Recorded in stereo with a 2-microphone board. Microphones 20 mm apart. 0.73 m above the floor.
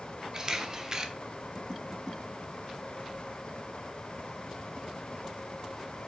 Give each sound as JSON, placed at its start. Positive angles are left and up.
{"t": 0.3, "sound": "a camera shutter", "side_deg": -30, "distance_m": 0.9}